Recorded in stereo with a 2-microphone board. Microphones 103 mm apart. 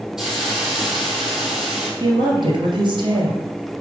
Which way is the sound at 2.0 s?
50° right (ahead or behind).